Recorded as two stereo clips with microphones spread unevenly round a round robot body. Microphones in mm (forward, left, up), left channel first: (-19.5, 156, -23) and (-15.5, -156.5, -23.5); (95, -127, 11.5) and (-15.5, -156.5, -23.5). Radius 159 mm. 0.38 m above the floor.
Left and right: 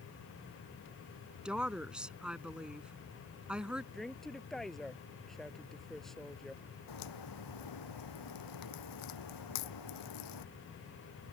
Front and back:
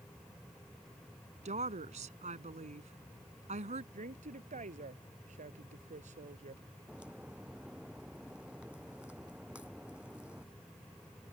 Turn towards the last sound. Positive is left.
turn(degrees=110)